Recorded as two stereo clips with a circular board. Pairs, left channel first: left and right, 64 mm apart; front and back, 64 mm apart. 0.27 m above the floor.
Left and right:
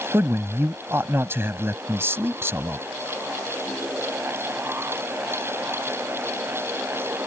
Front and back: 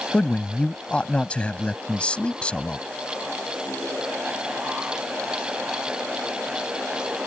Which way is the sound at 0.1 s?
65° right.